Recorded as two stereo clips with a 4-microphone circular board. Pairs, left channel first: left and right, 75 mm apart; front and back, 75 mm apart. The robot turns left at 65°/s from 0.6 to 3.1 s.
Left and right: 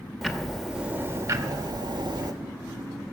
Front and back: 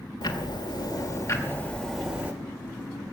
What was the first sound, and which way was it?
Ticking, straight ahead.